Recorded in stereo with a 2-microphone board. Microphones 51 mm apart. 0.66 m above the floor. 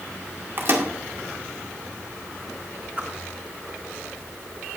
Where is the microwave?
50° right (ahead or behind), 1.7 m.